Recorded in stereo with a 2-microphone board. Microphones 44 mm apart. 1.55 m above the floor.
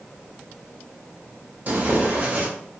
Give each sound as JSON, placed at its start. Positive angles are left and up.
{"t": 1.7, "sound": "tearing paper", "side_deg": -40, "distance_m": 0.8}